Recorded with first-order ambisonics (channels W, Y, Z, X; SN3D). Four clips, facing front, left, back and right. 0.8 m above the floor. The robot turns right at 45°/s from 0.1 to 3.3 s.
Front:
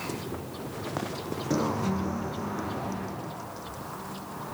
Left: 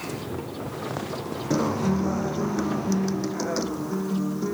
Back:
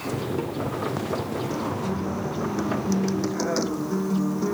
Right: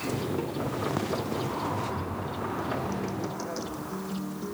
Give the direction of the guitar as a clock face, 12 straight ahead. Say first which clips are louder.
Left 7 dB, even; 10 o'clock.